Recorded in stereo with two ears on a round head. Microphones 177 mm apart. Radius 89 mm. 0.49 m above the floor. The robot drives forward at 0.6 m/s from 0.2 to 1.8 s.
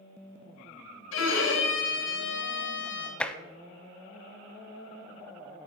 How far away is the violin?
About 2 m.